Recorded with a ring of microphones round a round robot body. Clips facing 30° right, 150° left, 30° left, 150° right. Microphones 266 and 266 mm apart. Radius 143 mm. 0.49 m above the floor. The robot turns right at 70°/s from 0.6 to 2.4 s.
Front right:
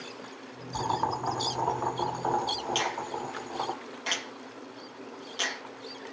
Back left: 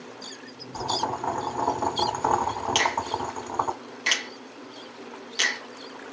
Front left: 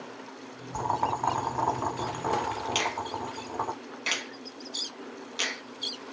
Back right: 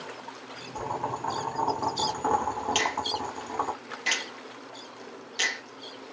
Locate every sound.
0.7 s boiling: 20° left, 1.2 m; by 3.8 s 135° left, 1.2 m
2.8 s a finger snap: 115° left, 1.5 m